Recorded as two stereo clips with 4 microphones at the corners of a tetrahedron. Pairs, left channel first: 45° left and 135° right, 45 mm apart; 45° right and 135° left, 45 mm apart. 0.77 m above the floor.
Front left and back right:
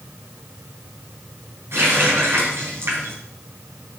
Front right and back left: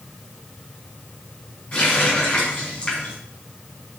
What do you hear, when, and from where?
1.7 s a running tap: 110° right, 4 m